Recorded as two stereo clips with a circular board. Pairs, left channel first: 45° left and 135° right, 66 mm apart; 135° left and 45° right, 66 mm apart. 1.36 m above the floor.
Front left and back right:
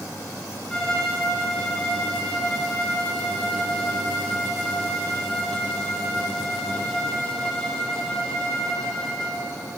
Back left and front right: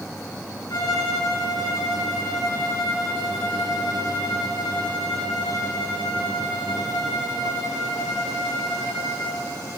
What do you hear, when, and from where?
0.7 s a violin: 125° left, 2.5 m